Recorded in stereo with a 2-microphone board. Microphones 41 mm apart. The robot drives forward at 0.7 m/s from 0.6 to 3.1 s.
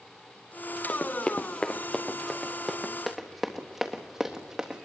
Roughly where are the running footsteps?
Left.